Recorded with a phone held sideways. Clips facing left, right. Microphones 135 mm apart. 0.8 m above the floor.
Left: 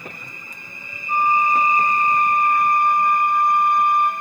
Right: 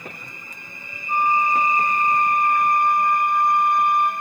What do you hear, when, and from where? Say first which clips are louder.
1.1 s a flute: left 2 dB; 10° left (ahead or behind), 1.6 m